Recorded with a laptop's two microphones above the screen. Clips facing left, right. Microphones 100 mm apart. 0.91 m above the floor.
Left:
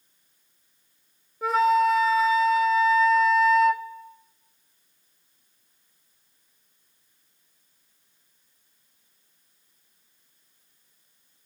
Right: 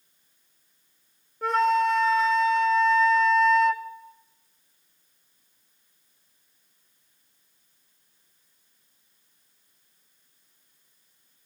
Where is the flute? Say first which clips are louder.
Left 2 dB; 5° left (ahead or behind), 0.6 m.